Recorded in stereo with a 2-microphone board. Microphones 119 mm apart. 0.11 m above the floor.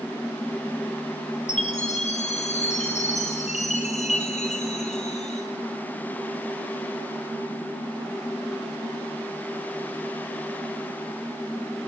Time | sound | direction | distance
1.5 | a chime | 85° left | 3 m